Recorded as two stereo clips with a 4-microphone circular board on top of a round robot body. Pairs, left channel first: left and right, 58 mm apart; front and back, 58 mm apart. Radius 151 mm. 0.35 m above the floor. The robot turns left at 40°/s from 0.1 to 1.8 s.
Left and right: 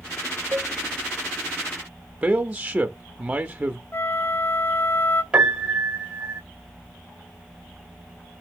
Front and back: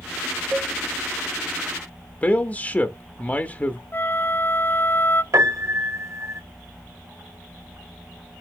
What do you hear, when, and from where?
0.5 s a cowbell: 130° right, 1.9 m; by 0.7 s 140° right, 1.9 m
2.2 s a man speaking: 40° right, 1.0 m
3.9 s a flute: 45° left, 0.8 m
5.3 s a piano: 160° right, 1.8 m